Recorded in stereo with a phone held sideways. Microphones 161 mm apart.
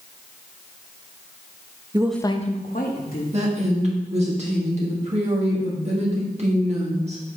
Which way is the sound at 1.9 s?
25° right (ahead or behind).